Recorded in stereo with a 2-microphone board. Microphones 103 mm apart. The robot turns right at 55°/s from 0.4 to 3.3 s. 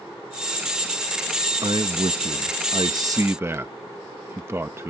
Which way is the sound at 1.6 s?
120° right.